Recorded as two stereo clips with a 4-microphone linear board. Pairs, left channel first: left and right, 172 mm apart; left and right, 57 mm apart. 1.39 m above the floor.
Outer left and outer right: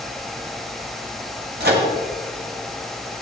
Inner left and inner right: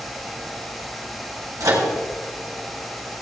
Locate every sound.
1.6 s a microwave: 70° right (ahead or behind), 1.8 m